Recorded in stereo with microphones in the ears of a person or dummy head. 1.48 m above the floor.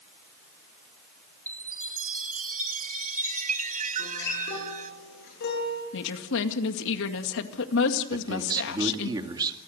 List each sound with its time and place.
1.5 s a chime: 40° right (ahead or behind), 0.9 m
4.0 s a guitar: 65° left (ahead or behind), 8.5 m
5.9 s a woman speaking: 70° left (ahead or behind), 2 m
8.1 s a man speaking: 20° right (ahead or behind), 2.5 m